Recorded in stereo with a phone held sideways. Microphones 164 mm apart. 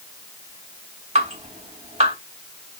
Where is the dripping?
45° right (ahead or behind), 2.5 m.